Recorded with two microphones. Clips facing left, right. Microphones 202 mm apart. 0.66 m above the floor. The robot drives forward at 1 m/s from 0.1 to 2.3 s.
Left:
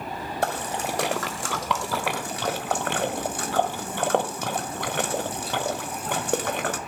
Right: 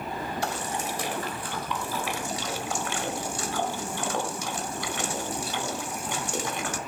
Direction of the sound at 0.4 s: 55° left (ahead or behind).